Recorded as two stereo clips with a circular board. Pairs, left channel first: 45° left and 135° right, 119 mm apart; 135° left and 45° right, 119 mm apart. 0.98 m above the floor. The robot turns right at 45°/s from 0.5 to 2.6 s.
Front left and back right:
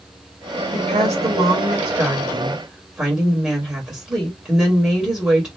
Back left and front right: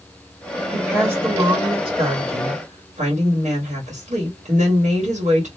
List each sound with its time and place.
0.7 s a woman speaking: 140° right, 2 m; by 5.5 s 55° right, 2 m